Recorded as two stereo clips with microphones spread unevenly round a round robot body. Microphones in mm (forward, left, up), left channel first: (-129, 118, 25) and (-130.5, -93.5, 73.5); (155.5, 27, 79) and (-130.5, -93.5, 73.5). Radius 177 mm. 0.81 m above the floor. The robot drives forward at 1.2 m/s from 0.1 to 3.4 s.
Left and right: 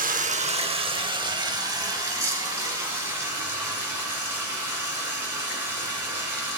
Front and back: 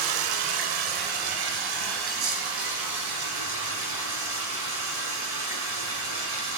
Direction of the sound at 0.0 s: 145° right.